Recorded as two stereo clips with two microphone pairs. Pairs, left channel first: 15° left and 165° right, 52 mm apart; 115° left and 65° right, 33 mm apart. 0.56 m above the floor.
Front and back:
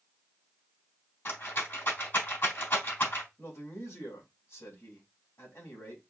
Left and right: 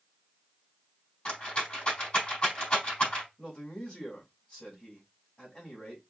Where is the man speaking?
45° left, 4 m.